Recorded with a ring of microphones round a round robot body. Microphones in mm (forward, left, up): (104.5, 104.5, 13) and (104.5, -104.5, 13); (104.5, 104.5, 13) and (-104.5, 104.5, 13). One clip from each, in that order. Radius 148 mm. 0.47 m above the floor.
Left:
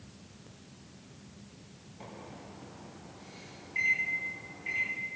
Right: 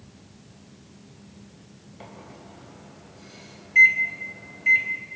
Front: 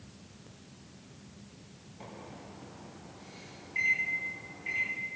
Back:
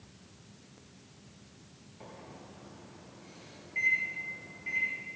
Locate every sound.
2.0 s a microwave: 80° right, 2.5 m